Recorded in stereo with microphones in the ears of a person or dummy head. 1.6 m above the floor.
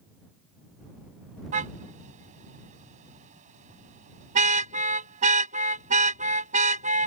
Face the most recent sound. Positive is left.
turn(degrees=-40)  # may be behind; listen again after turning